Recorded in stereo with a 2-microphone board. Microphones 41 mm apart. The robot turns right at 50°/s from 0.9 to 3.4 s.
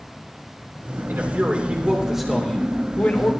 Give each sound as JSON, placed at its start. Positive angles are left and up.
{"t": 1.1, "sound": "a man speaking", "azimuth_deg": -60, "distance_m": 2.5}